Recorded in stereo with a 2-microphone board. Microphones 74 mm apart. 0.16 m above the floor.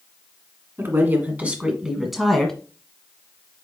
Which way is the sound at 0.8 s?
35° right (ahead or behind).